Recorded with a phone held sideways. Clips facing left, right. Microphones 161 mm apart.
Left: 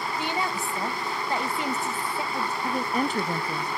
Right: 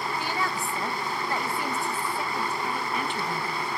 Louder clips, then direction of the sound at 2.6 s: Left 4 dB; 40° left (ahead or behind).